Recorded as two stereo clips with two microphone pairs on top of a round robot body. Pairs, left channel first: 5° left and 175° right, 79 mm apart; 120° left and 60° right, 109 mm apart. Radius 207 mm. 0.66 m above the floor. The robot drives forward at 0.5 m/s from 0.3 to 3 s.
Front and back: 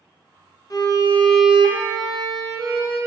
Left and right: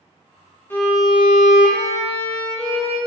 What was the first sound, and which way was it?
A violin, 45° left.